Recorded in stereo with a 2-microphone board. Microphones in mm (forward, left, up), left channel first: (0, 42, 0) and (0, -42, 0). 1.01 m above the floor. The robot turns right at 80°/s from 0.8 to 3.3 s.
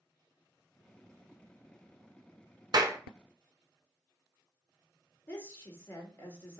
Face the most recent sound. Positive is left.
turn(degrees=30)  # may be behind; listen again after turning